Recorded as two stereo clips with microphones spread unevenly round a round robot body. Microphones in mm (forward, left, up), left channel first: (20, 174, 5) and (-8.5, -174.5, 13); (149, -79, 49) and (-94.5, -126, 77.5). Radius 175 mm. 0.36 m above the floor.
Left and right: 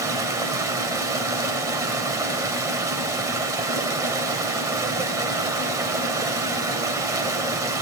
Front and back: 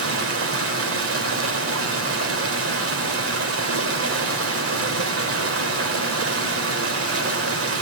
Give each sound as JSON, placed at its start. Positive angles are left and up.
{"t": 0.0, "sound": "running water", "azimuth_deg": -175, "distance_m": 1.7}